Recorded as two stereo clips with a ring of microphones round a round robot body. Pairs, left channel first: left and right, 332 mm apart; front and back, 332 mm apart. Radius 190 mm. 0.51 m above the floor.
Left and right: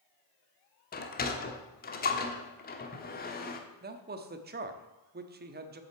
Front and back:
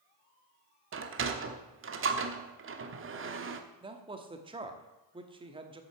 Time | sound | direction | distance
0.9 | a sliding door | 145° left | 1.1 m
3.8 | a man speaking | 120° right | 1.0 m